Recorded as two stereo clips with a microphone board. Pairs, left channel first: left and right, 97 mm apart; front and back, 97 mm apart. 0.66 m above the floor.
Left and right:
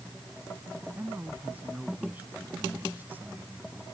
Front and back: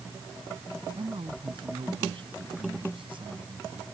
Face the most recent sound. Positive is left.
turn(degrees=-160)